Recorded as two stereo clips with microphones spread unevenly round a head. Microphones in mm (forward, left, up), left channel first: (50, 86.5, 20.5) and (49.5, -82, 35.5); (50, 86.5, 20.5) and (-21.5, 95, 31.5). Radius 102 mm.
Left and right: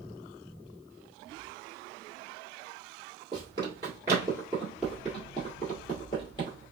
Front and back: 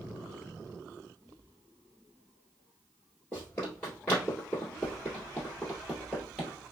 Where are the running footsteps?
70° right, 2.0 m; by 6.6 s 115° left, 1.8 m.